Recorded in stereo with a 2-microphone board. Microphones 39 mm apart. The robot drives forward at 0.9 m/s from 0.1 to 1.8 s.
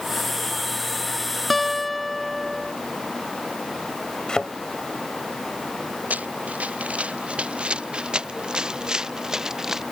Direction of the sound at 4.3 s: 20° left (ahead or behind).